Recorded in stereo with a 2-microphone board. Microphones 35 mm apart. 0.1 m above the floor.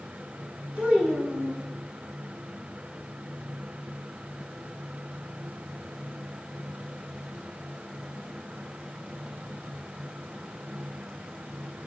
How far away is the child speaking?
About 2.5 m.